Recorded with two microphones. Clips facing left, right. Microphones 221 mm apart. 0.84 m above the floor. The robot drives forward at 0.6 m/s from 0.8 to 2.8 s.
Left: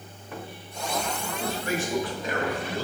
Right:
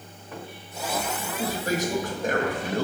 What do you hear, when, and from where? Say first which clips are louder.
1.4 s a man speaking: right 3 dB; 35° right (ahead or behind), 1.2 m; by 2.9 s 55° right (ahead or behind), 0.8 m